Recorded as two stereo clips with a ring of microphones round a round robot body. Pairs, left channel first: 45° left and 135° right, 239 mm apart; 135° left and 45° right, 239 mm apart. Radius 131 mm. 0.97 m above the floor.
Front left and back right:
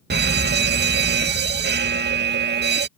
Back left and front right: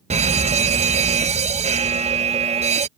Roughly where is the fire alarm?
Right.